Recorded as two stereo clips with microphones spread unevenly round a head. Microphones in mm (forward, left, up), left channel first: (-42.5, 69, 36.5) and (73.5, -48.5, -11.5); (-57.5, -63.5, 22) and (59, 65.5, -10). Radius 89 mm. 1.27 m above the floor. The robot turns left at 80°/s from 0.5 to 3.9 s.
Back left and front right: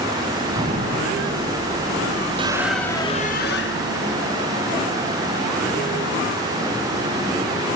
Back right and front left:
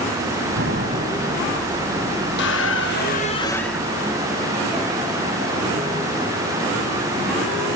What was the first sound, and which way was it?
An explosion, 20° left.